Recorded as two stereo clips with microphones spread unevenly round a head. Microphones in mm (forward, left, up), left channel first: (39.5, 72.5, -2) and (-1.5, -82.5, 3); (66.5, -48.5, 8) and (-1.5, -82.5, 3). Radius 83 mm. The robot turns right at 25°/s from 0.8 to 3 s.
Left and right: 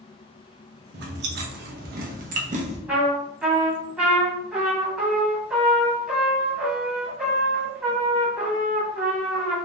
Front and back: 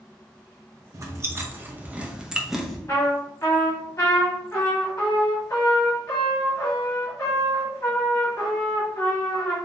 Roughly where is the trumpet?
Ahead right.